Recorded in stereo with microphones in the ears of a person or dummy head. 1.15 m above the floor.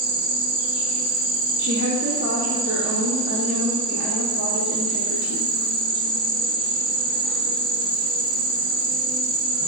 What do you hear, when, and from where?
0.0 s an insect: 70° right (ahead or behind), 0.7 m
1.6 s a woman speaking: 55° right (ahead or behind), 0.5 m